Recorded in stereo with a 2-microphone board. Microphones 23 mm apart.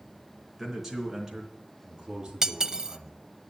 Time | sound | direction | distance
0.6 | a man speaking | 5° right (ahead or behind) | 4 m
2.4 | cutlery clinking | 25° right (ahead or behind) | 0.6 m